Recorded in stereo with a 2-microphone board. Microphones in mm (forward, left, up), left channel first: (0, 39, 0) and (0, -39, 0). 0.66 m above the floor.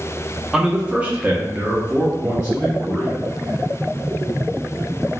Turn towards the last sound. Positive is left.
turn(degrees=-20)  # may be behind; listen again after turning